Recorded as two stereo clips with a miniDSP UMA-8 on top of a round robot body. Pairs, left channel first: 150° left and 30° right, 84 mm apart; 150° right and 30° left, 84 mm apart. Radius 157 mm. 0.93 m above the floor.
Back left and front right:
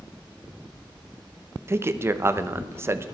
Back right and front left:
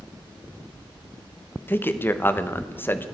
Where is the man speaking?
85° right, 1.1 m.